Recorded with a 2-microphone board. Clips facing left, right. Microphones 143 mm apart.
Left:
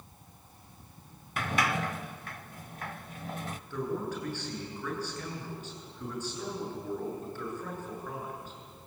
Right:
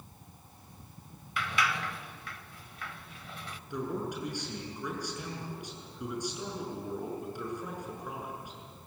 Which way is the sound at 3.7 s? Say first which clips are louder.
Left 1 dB; 15° right (ahead or behind).